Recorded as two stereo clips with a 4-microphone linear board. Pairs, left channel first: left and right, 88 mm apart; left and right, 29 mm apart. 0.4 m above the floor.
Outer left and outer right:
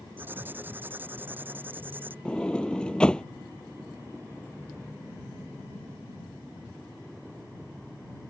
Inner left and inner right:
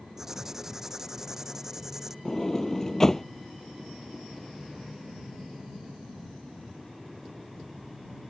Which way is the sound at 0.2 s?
20° right (ahead or behind).